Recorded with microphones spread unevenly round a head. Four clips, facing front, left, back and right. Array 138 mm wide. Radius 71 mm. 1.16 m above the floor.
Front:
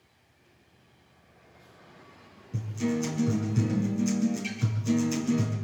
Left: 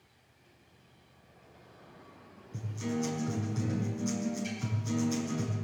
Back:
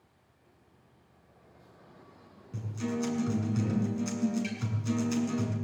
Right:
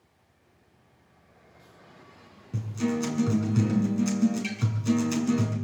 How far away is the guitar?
About 7.5 m.